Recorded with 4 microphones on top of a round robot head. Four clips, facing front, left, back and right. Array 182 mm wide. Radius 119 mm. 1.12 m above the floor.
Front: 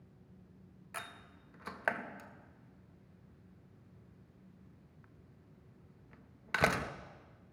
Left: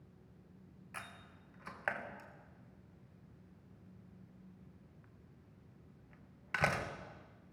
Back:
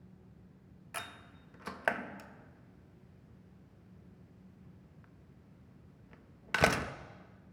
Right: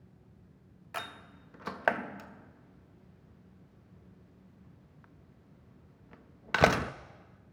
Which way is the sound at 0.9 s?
100° right.